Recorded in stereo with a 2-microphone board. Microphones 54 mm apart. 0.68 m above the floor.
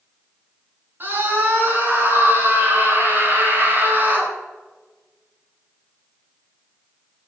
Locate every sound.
1.0 s a scream: 45° right (ahead or behind), 10 m